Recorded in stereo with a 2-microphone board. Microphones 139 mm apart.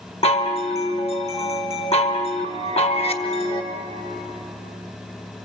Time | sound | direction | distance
0.2 | a chime | 45° left (ahead or behind) | 1.6 m